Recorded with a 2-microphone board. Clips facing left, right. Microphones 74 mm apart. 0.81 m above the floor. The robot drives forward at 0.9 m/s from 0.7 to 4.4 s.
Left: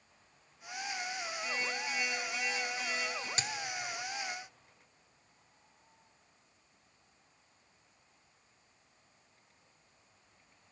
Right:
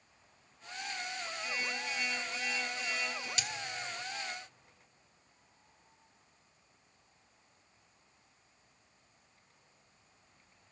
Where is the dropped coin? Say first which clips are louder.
Left 2 dB; 35° left (ahead or behind), 0.6 m; by 3.5 s 30° left (ahead or behind), 0.6 m.